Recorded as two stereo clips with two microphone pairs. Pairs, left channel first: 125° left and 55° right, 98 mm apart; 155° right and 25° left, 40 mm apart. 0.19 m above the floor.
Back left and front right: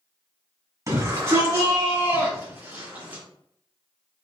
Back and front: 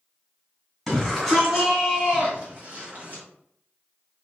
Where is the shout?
75° right, 1.7 m; by 3.2 s 10° left, 1.9 m.